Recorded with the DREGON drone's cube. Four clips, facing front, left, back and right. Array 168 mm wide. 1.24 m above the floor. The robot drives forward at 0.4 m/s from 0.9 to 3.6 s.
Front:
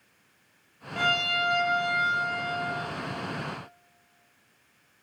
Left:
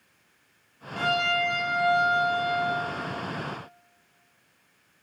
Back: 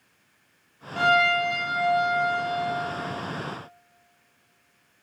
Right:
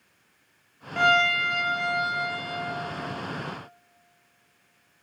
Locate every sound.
1.0 s a violin: 100° right, 0.6 m; by 2.7 s 145° right, 1.0 m